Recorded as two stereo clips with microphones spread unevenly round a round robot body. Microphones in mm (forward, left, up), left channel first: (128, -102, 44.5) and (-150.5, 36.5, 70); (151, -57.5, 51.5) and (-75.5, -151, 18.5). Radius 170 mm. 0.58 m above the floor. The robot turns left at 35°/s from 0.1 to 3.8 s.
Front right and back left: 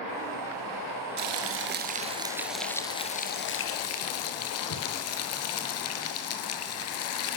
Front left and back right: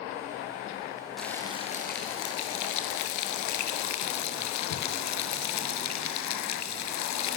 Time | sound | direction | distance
1.2 | frying | 110° left | 4.5 m